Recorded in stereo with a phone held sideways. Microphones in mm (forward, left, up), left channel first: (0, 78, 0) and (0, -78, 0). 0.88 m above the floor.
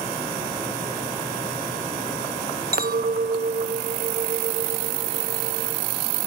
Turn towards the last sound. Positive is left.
turn(degrees=-70)  # may be behind; listen again after turning